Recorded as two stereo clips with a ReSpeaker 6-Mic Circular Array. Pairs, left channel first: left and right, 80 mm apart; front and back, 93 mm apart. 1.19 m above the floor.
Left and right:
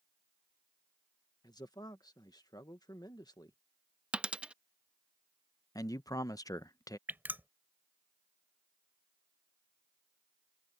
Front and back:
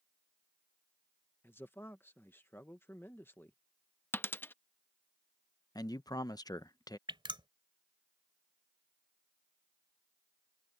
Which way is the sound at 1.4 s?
65° left.